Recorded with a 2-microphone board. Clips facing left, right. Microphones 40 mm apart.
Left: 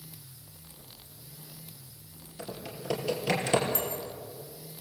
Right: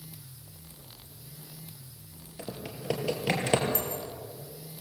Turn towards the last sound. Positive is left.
turn(degrees=35)  # may be behind; listen again after turning